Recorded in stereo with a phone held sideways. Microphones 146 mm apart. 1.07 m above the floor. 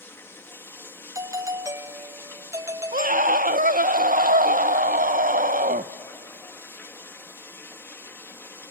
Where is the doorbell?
20° right (ahead or behind), 0.5 m.